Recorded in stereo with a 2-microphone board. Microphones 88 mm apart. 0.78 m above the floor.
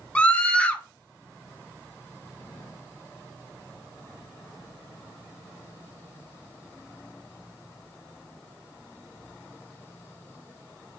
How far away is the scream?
About 0.7 m.